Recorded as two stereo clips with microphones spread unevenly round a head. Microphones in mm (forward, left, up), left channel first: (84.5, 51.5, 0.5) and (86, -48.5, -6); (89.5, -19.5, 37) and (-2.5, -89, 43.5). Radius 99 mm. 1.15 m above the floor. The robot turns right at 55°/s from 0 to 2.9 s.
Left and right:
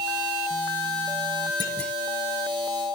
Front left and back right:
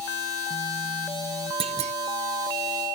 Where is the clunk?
160° left; by 1.9 s straight behind.